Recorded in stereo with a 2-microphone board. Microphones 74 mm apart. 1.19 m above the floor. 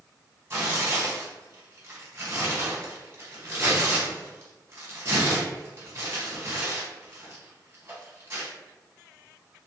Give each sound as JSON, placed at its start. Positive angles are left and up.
{"t": 0.5, "sound": "tearing paper", "side_deg": -40, "distance_m": 1.3}